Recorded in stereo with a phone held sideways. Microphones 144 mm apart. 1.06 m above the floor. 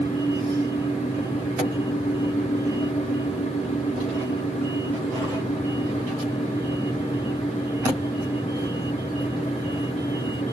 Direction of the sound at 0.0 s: 55° left (ahead or behind).